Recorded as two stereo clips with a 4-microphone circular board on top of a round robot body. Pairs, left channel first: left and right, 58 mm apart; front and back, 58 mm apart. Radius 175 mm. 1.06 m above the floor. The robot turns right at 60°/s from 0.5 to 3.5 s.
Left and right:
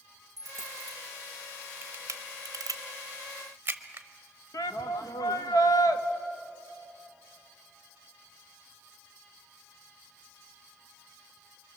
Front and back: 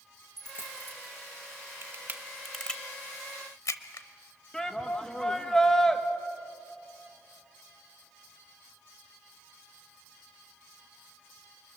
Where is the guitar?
No guitar in this recording.